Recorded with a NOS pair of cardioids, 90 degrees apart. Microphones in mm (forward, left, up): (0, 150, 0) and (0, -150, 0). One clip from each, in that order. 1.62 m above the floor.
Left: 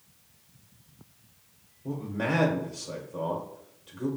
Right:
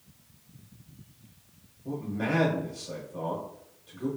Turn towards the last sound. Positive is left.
turn(degrees=35)